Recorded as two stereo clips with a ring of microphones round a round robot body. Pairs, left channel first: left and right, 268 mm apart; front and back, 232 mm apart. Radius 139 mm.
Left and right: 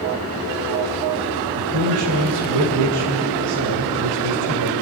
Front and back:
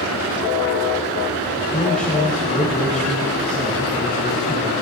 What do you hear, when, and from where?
1.6 s a man speaking: 85° right, 2.5 m